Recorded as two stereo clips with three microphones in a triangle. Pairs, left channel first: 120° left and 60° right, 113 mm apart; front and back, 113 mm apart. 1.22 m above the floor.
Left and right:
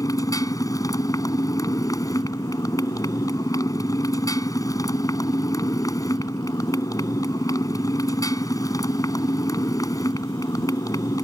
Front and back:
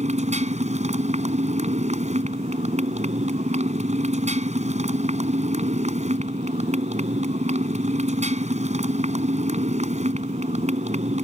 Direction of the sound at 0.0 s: Straight behind.